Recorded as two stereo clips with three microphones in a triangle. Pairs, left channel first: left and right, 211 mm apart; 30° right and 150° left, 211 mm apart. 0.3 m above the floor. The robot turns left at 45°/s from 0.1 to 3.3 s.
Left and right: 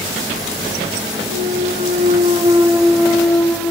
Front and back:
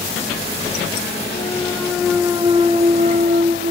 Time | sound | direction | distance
1.3 | a clunk | 95° right | 1.0 m